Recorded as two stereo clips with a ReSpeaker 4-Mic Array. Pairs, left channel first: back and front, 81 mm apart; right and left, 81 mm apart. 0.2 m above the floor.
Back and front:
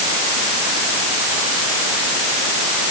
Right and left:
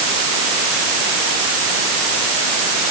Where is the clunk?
I don't hear a clunk.